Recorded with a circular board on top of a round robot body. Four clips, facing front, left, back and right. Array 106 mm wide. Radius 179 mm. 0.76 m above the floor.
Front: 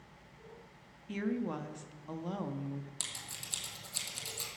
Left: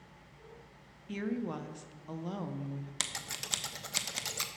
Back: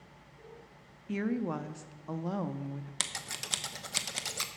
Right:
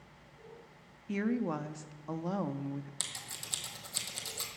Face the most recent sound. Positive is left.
turn(degrees=145)